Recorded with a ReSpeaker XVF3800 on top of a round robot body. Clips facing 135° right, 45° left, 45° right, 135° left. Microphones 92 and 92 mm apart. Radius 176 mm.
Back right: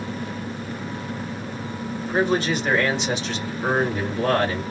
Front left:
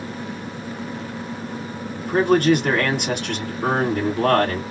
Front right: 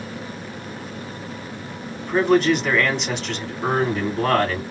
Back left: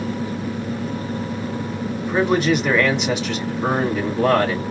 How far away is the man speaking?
About 2 m.